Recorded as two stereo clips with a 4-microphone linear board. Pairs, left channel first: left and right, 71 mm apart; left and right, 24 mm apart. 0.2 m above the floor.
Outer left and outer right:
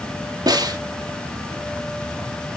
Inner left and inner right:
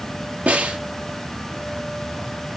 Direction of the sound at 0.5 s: 70° right (ahead or behind).